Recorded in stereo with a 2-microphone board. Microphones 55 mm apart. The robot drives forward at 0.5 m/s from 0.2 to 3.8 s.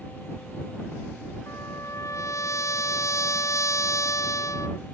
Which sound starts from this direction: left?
A trumpet, at 1.5 s.